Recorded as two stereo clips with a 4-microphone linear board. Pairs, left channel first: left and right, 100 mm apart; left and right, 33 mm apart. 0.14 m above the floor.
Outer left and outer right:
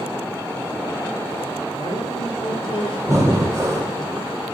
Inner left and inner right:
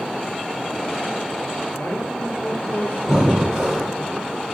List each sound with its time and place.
1.8 s a man speaking: 55° left (ahead or behind), 3 m
3.1 s breathing: 25° right (ahead or behind), 1.8 m